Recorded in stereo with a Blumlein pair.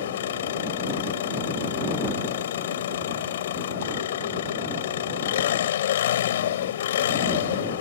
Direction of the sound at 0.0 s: 60° left.